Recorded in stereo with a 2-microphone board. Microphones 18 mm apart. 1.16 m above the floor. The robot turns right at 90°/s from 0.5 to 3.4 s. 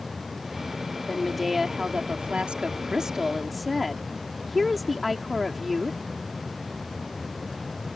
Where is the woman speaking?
155° left; by 6.0 s 5° left.